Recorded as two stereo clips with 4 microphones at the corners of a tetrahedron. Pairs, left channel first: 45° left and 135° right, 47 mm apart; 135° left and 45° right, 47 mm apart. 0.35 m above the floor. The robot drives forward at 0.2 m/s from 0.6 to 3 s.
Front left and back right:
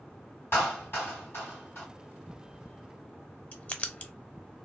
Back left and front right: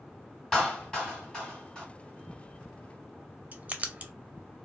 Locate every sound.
0.5 s a clap: 55° left, 1.9 m; by 1.9 s 65° left, 1.8 m
3.5 s writing: straight ahead, 0.5 m